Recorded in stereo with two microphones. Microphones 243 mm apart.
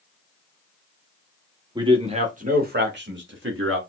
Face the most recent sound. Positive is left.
turn(degrees=-60)  # may be behind; listen again after turning